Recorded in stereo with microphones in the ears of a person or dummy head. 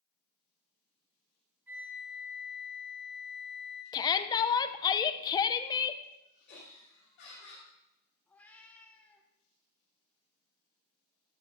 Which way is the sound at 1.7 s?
10° right (ahead or behind).